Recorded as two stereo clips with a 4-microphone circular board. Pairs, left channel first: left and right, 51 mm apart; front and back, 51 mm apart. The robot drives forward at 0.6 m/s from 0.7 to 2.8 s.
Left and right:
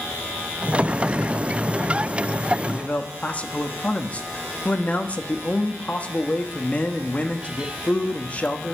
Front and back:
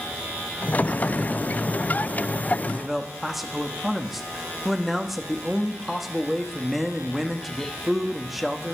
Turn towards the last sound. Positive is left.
turn(degrees=95)